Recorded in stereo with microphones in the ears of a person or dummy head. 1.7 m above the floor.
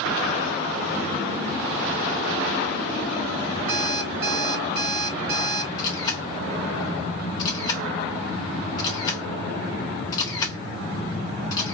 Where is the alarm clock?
35° right (ahead or behind), 2 m.